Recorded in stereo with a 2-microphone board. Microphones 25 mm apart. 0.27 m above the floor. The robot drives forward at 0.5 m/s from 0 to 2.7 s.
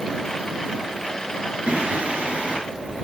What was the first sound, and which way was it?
Singing, 60° right (ahead or behind).